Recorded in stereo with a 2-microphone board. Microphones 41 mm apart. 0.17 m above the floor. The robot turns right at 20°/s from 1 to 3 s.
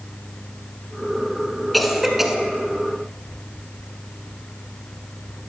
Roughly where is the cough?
Centre.